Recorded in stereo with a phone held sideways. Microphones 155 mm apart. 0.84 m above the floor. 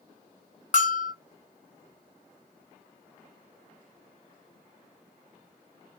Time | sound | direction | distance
0.7 | a bell | 55° left (ahead or behind) | 0.6 m